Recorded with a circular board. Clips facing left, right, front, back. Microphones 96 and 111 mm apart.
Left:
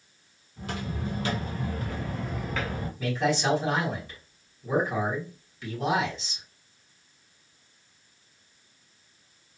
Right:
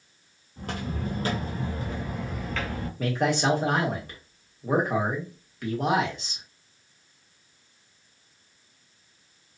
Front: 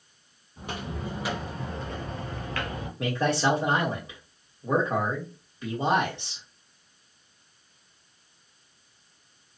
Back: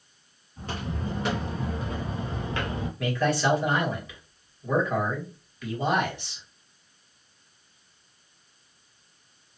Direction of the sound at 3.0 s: 60° right.